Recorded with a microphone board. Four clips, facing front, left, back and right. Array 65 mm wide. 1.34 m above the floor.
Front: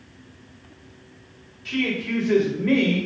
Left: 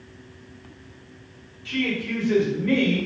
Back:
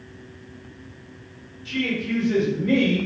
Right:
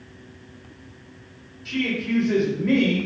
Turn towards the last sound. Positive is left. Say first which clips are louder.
# right 1 dB, even
turn(degrees=-10)